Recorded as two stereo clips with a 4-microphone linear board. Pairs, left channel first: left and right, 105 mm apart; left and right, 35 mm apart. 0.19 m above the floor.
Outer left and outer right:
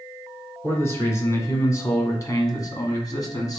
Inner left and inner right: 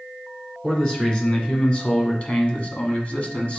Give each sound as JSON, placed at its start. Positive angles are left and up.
{"t": 0.6, "sound": "a man speaking", "side_deg": 25, "distance_m": 2.0}